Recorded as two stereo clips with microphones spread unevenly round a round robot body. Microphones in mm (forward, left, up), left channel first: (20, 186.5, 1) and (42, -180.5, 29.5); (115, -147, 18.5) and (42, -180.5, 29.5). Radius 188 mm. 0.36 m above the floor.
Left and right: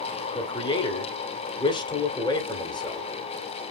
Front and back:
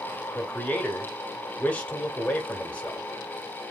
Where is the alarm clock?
I don't hear an alarm clock.